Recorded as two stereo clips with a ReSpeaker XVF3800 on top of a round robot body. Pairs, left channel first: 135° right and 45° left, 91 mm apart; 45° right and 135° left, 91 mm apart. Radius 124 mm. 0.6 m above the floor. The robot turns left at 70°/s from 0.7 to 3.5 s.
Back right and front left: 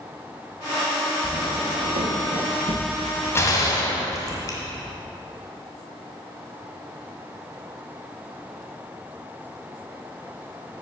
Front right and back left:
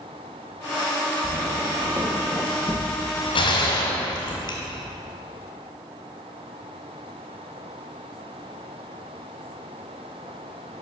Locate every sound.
1.2 s footsteps: 115° left, 4 m; by 4.3 s 70° right, 2.5 m
3.4 s a gunshot: 70° right, 1.8 m; by 4.6 s 80° right, 1.8 m